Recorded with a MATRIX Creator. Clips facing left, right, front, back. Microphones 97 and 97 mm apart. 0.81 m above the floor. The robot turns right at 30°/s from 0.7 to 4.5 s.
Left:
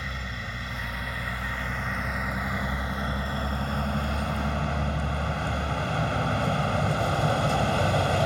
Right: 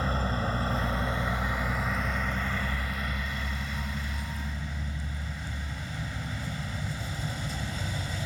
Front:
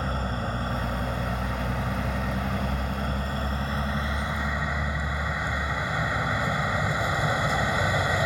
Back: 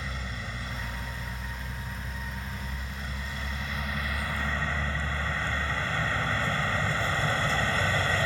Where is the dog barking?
No dog barking in this recording.